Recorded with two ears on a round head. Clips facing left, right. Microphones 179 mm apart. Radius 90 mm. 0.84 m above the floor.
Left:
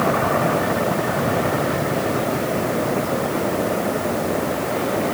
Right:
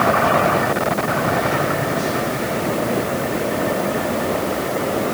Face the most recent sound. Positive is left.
No sound to turn to.